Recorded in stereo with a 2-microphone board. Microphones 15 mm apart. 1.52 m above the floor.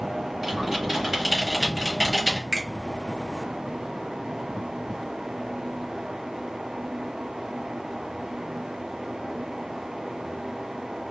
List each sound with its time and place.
0.4 s typing on a keyboard: 20° right (ahead or behind), 1.1 m
2.5 s a finger snap: 55° right (ahead or behind), 1.2 m